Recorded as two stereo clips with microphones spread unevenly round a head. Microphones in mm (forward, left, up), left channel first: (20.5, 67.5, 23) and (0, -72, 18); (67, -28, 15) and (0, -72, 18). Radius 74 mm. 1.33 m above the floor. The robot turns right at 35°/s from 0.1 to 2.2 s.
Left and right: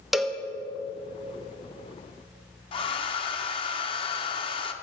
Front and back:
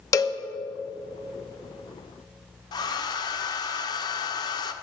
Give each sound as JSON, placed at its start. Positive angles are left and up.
{"t": 0.1, "sound": "a cowbell", "azimuth_deg": -10, "distance_m": 0.8}
{"t": 2.7, "sound": "a hair dryer", "azimuth_deg": 35, "distance_m": 0.8}